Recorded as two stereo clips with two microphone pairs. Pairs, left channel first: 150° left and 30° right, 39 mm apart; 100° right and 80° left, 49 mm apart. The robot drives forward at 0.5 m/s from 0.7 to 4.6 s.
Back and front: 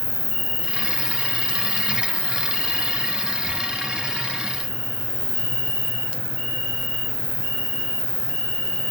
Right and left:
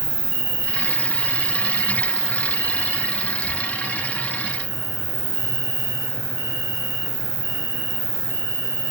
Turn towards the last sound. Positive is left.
turn(degrees=-135)